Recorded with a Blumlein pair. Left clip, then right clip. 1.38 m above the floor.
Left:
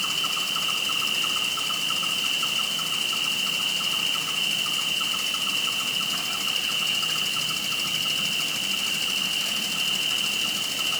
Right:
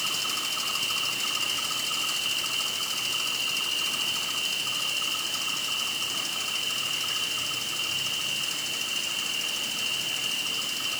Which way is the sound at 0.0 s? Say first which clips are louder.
Left 3 dB; 45° left.